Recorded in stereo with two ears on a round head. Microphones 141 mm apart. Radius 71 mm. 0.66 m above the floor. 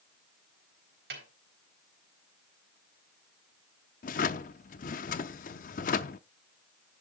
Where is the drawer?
55° left (ahead or behind), 0.7 m.